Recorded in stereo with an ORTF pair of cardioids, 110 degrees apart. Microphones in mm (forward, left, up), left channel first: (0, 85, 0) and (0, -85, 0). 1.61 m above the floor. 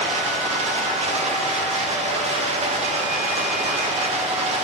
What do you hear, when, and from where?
0.0 s running water: 40° right, 1.6 m